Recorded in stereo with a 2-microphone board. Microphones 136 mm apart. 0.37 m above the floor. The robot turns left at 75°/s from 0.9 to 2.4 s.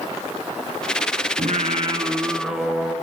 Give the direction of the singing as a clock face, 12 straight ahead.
3 o'clock.